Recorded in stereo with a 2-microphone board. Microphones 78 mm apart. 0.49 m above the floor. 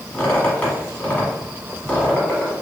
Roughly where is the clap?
I don't hear a clap.